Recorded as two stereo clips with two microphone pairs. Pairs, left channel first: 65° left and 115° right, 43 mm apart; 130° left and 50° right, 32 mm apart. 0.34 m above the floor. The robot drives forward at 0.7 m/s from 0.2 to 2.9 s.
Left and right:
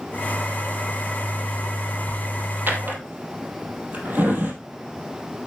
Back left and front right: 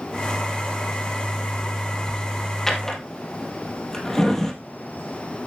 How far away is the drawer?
About 2.0 m.